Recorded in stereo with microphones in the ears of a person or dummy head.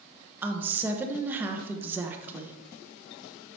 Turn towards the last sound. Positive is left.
turn(degrees=-10)  # may be behind; listen again after turning